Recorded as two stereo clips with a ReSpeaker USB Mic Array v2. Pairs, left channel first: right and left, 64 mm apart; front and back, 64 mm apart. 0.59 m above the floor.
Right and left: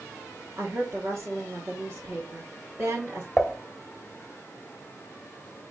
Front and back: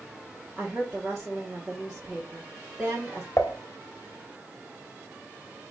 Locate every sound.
0.6 s a woman speaking: 100° left, 1.2 m
3.4 s dishes clattering: 10° right, 0.6 m